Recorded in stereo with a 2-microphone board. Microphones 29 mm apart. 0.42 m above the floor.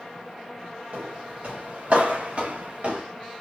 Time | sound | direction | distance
0.9 | footsteps | 70° right (ahead or behind) | 2.5 m